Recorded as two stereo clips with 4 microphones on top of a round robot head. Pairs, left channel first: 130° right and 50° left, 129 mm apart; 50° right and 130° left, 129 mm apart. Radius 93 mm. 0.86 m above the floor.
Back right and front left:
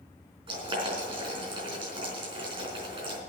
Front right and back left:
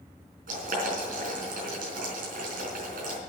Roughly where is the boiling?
Left.